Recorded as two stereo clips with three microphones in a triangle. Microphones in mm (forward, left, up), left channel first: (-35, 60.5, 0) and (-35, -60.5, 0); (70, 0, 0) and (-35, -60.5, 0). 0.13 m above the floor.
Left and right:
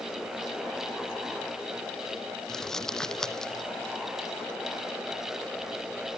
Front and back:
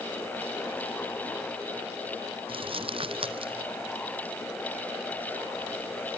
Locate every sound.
2.5 s crumpling: 175° left, 0.9 m